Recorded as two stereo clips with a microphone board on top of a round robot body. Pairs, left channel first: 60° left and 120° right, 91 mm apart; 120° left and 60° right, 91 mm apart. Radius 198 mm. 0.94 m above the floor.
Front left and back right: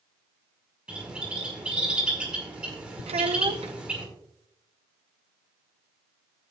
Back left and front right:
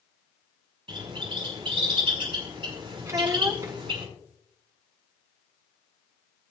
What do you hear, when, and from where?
0.9 s a bird: 40° right, 5 m
3.1 s a child speaking: 115° right, 1.0 m